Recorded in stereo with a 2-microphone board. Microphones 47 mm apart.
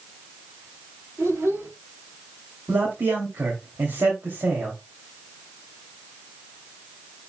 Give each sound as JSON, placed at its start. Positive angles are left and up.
{"t": 1.2, "sound": "a child speaking", "side_deg": -80, "distance_m": 6.0}
{"t": 2.7, "sound": "a man speaking", "side_deg": -65, "distance_m": 3.0}